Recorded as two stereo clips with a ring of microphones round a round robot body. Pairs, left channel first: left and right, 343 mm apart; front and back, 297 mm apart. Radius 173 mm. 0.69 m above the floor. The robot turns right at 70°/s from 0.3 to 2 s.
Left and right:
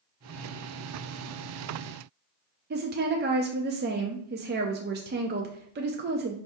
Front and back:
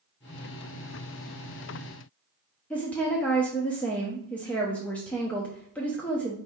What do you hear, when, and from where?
2.7 s a woman speaking: 80° right, 0.5 m